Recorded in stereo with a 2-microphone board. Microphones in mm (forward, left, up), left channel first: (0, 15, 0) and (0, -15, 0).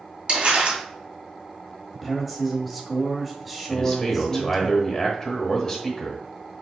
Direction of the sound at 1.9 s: 5° right (ahead or behind).